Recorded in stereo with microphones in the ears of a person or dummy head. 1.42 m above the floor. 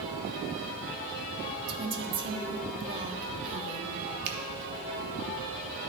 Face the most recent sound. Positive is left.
turn(degrees=-70)  # may be behind; listen again after turning